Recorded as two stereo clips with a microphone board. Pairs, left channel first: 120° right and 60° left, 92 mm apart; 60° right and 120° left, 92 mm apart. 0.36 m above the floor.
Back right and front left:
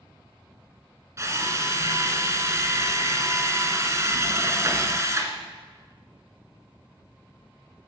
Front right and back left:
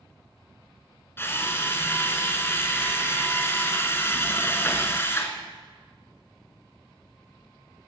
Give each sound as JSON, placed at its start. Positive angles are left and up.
{"t": 1.2, "sound": "a drill", "azimuth_deg": 5, "distance_m": 1.7}